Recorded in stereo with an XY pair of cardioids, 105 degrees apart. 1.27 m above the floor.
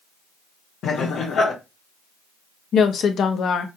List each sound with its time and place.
0.8 s laughter: 65° left, 1.1 m
2.7 s a woman speaking: 60° left, 0.8 m